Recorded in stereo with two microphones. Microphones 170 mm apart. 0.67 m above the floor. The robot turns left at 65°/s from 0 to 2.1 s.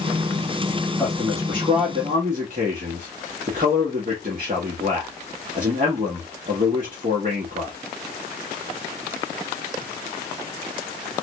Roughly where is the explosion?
No explosion in this recording.